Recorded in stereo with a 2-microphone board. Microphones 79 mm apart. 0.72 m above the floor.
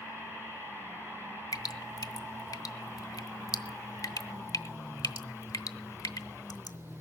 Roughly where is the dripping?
Left.